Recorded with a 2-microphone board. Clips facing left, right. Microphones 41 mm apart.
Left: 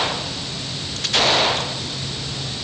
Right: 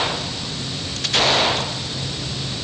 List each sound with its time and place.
Only background noise.